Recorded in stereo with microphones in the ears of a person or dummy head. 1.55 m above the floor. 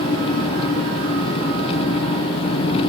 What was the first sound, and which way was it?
An engine running, 35° left (ahead or behind).